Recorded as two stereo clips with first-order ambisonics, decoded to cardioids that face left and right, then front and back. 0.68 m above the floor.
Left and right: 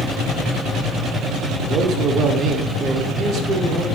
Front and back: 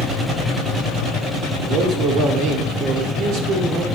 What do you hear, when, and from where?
1.6 s a man speaking: 145° right, 1.5 m